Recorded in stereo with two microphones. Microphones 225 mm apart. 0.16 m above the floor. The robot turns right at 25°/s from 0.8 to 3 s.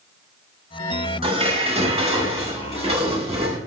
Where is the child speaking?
No child speaking in this recording.